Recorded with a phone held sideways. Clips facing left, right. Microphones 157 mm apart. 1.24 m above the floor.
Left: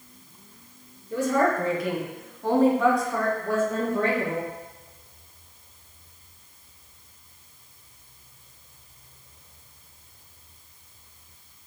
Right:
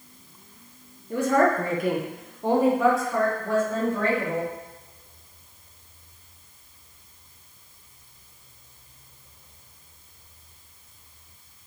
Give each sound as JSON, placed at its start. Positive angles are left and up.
{"t": 1.1, "sound": "a woman speaking", "side_deg": -60, "distance_m": 0.7}